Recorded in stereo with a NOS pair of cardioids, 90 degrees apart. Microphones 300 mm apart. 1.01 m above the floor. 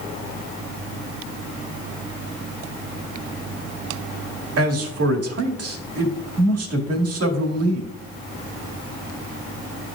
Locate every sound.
4.6 s a man speaking: 55° right, 1.9 m